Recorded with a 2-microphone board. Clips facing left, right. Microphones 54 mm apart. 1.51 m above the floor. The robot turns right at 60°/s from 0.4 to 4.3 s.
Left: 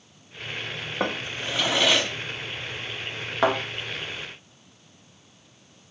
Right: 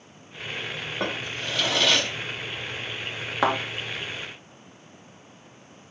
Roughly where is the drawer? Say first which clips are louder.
Left 2 dB; centre.